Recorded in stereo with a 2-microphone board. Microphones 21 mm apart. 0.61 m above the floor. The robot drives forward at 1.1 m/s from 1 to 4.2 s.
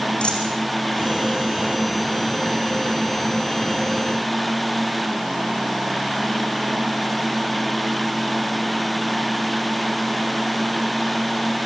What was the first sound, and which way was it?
A dropped coin, 85° left.